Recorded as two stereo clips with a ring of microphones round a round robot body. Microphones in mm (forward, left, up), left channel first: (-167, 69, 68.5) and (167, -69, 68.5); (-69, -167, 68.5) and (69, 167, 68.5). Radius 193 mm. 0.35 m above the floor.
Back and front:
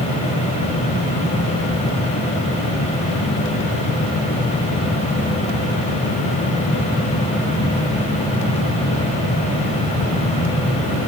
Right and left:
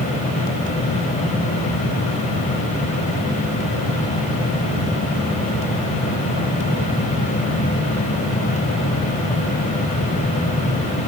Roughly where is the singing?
I don't hear singing.